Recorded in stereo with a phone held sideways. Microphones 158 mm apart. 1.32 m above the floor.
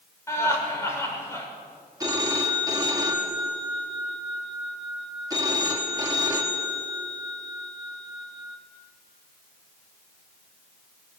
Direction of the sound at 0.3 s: 15° left (ahead or behind).